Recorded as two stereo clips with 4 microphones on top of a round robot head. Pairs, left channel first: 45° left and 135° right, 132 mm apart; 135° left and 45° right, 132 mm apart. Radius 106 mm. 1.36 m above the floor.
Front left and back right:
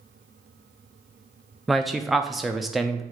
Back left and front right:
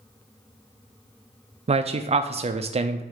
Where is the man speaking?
45° right, 0.5 m.